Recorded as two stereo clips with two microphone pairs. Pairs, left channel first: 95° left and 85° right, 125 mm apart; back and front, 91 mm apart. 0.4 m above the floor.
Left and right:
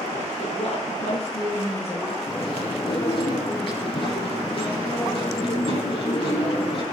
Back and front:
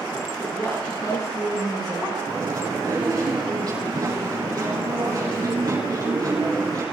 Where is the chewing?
50° left, 8 m.